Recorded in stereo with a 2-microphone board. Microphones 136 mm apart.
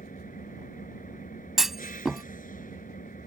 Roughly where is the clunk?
Centre.